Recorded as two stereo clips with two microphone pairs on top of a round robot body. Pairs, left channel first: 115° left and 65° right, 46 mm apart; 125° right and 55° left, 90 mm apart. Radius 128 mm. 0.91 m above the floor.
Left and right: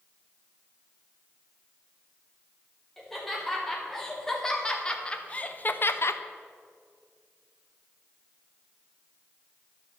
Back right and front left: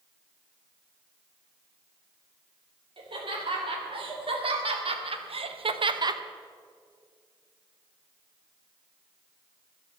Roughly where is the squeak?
I don't hear a squeak.